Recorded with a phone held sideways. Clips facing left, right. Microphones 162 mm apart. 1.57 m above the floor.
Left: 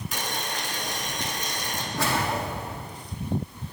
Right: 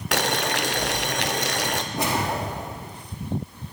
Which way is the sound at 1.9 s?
20° right (ahead or behind).